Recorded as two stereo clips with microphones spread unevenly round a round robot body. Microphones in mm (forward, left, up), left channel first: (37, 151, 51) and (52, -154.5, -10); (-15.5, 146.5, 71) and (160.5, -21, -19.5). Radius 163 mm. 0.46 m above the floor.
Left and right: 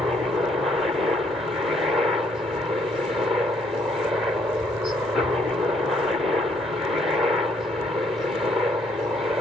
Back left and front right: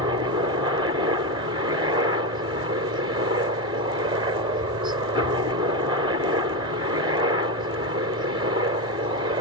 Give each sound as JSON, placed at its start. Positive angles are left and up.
{"t": 0.0, "sound": "a helicopter", "azimuth_deg": -10}